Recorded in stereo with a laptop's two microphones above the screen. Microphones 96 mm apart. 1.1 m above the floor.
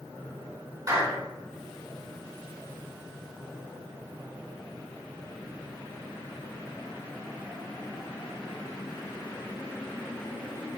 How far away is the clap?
About 3 m.